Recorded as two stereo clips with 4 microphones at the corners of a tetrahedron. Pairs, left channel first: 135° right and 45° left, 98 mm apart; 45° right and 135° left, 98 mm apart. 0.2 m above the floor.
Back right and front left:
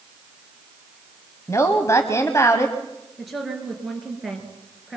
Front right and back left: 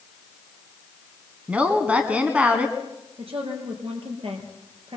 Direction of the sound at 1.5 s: 160° right.